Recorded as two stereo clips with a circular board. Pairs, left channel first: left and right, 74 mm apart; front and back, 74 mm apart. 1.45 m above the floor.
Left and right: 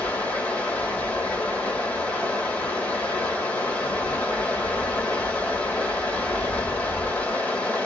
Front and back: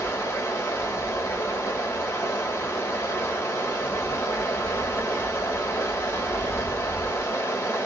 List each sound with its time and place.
0.0 s running water: 30° left, 1.6 m